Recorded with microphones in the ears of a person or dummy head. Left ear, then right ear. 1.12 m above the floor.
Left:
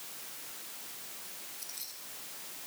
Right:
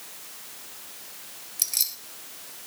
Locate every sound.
1.6 s keys jangling: 55° right (ahead or behind), 3 m